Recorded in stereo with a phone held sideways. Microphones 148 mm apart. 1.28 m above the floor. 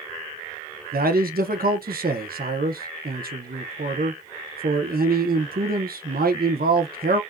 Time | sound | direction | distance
0.9 | a man speaking | 85° right | 0.7 m